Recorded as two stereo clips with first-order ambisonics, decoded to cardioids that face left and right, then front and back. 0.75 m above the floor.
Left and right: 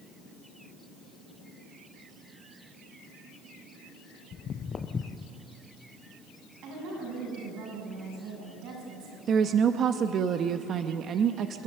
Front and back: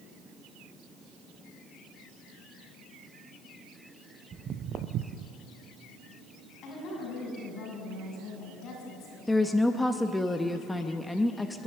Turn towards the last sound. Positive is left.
turn(degrees=-80)